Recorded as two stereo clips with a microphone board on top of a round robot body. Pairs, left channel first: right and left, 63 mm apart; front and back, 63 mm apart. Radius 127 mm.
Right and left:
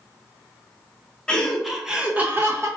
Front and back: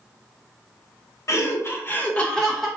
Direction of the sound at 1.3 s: 15° right.